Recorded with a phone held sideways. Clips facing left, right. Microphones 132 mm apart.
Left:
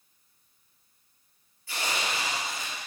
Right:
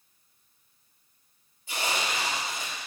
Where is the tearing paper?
20° right (ahead or behind), 3 m.